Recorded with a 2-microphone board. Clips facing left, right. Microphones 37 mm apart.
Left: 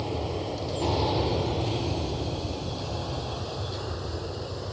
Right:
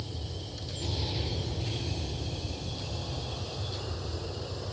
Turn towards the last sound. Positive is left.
turn(degrees=15)  # may be behind; listen again after turning